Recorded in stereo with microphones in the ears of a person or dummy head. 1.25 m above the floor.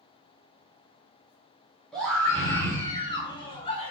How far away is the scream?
About 0.8 m.